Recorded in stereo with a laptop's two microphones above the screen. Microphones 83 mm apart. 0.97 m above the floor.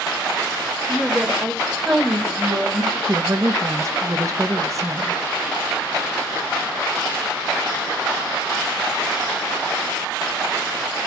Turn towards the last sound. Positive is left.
turn(degrees=-40)  # may be behind; listen again after turning